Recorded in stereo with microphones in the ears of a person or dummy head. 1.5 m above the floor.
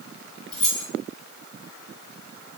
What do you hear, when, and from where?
0.5 s keys jangling: 5° left (ahead or behind), 1.5 m